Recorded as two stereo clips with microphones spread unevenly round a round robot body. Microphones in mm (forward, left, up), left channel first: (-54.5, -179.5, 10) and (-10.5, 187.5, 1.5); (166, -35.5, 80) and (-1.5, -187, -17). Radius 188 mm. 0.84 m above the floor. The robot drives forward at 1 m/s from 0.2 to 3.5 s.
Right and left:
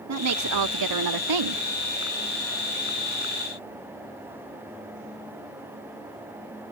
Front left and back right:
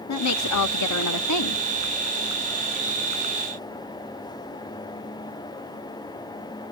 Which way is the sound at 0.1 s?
35° left.